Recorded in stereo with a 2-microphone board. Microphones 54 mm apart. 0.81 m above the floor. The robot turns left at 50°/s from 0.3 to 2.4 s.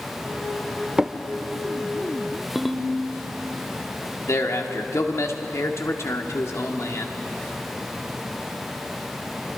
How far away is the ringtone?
About 1.0 m.